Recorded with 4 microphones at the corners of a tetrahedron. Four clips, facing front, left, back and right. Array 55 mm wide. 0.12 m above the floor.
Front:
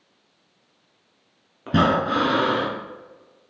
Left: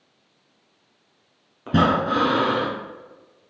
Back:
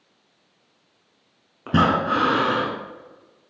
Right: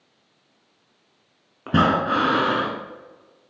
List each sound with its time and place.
1.7 s breathing: 120° right, 1.3 m